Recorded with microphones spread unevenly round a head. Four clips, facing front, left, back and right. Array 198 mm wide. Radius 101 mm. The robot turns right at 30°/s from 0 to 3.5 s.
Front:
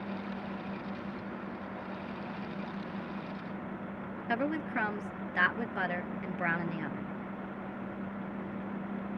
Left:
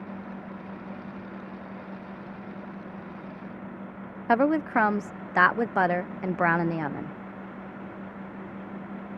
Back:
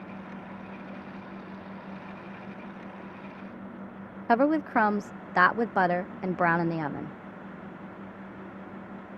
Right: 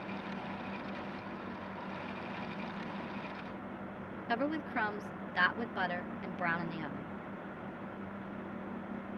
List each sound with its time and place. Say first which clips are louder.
4.3 s a woman speaking: left 12 dB, back 10 dB; 130° left